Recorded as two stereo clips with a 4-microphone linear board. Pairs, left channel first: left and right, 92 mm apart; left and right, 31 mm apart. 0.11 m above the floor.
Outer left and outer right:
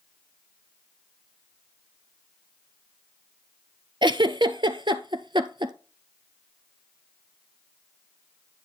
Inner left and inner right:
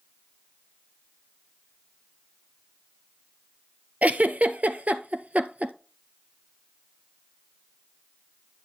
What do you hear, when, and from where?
4.0 s a giggle: 55° right (ahead or behind), 0.7 m